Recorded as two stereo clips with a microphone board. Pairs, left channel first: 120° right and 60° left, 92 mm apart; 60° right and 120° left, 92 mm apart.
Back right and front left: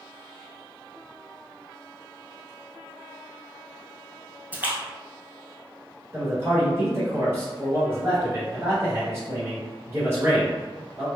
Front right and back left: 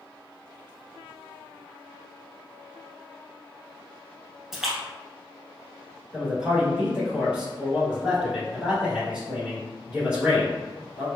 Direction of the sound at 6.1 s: 50° left.